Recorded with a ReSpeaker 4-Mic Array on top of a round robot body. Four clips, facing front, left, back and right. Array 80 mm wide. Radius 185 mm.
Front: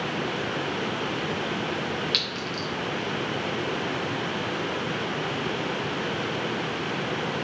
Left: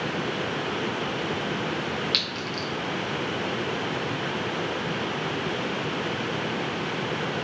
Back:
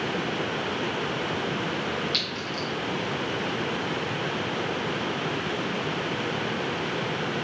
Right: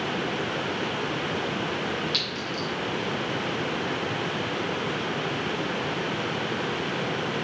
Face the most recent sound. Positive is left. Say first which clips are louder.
# even, even
turn(degrees=40)